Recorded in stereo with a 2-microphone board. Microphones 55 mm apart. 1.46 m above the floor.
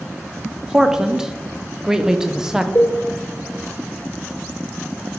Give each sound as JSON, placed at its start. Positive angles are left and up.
{"t": 0.7, "sound": "a man speaking", "side_deg": -10, "distance_m": 0.6}
{"t": 2.8, "sound": "a cowbell", "side_deg": 55, "distance_m": 2.5}